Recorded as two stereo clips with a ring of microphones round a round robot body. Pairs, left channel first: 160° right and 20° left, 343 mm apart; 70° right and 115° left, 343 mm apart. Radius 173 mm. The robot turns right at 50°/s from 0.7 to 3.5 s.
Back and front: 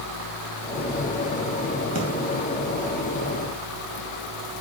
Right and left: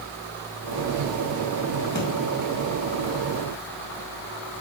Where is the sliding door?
No sliding door in this recording.